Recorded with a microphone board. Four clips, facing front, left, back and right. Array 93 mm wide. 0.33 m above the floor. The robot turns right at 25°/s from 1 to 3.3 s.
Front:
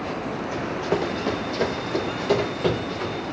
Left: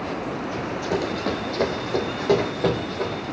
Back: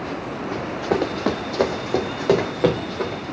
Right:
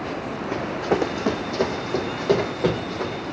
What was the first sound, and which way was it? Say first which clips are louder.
Running footsteps: right 5 dB, back 3 dB; 130° right.